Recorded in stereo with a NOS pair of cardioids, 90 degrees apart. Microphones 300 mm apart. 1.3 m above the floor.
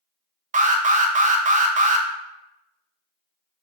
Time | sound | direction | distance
0.5 | an alarm | 25° right | 0.6 m